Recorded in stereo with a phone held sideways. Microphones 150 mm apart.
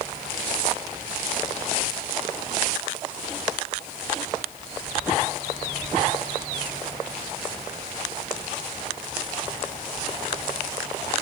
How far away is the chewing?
I don't hear chewing.